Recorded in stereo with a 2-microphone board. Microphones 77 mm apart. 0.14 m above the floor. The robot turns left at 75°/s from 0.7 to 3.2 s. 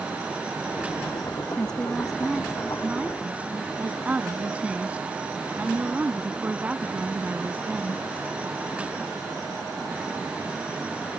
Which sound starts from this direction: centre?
A woman speaking, at 1.6 s.